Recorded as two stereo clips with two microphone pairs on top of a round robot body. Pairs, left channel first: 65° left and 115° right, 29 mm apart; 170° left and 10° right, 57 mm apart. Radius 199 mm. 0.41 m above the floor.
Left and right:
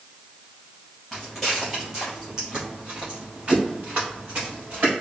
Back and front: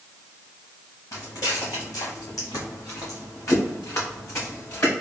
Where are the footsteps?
150° left, 1.6 m; by 4.9 s 145° right, 2 m.